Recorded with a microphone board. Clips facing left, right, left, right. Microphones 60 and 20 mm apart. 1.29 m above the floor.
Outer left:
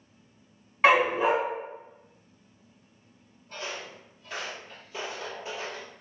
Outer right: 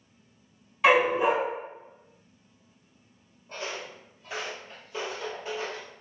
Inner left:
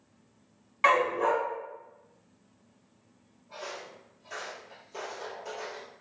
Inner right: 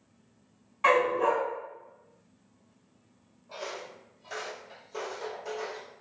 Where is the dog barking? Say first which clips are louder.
Even, even; 45° left (ahead or behind), 1.5 m.